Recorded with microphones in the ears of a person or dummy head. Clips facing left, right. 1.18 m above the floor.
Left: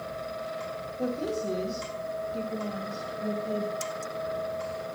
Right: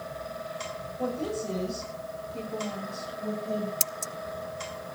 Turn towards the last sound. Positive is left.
turn(degrees=-65)  # may be behind; listen again after turning